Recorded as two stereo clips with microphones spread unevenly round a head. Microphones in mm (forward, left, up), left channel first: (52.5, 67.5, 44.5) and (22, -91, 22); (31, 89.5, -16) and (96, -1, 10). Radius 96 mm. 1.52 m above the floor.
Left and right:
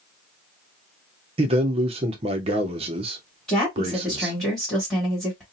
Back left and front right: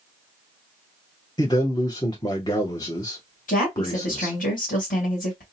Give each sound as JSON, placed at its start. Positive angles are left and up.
{"t": 1.4, "sound": "a man speaking", "azimuth_deg": -165, "distance_m": 0.5}
{"t": 3.5, "sound": "a woman speaking", "azimuth_deg": 165, "distance_m": 1.6}